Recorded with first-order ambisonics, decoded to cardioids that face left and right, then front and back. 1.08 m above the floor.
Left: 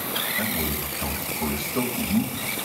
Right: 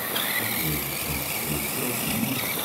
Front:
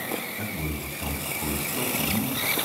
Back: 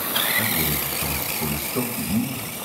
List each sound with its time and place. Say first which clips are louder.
0.4 s a man speaking: left 1 dB, back 9 dB; 135° left, 4.5 m